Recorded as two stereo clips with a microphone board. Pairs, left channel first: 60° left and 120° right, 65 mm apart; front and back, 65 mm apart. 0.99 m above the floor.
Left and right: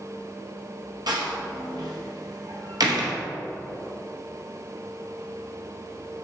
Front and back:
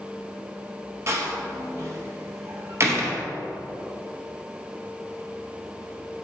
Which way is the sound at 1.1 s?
130° right.